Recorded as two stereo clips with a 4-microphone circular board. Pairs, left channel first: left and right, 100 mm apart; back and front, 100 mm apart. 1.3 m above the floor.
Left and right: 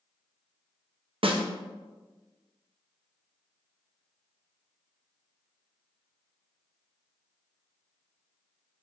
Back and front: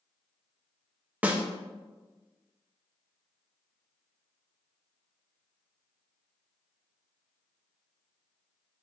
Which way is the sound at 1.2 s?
75° right.